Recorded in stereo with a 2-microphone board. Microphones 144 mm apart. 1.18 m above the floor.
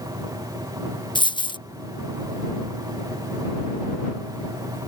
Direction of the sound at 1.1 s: 35° left (ahead or behind).